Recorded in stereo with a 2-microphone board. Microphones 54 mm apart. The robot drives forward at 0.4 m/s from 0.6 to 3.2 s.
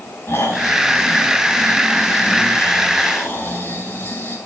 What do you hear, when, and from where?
0.3 s snoring: 55° left (ahead or behind), 5 m; by 4.3 s 45° left (ahead or behind), 5.5 m